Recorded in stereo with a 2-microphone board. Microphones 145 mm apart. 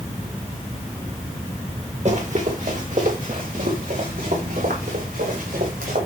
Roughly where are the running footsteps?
Right.